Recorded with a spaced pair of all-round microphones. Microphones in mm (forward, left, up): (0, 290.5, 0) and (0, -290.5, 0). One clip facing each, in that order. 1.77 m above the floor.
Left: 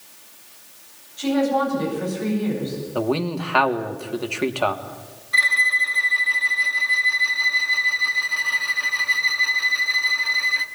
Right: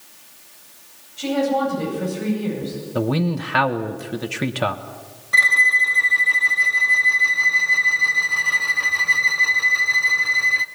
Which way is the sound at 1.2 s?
50° right (ahead or behind).